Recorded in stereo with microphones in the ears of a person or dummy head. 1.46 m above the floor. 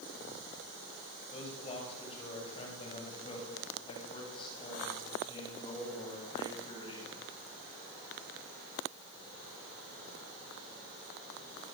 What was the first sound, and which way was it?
A man speaking, 30° left (ahead or behind).